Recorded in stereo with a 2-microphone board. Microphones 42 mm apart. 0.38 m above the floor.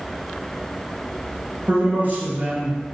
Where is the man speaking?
40° right (ahead or behind), 1.5 m.